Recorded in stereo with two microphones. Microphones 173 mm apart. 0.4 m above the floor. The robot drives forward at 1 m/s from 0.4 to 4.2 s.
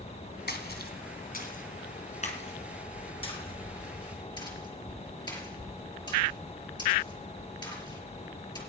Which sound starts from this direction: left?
A splash, at 0.5 s.